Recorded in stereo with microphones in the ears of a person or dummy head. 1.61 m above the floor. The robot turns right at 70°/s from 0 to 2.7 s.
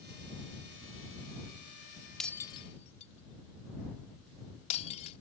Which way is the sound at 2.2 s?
Centre (ahead or behind).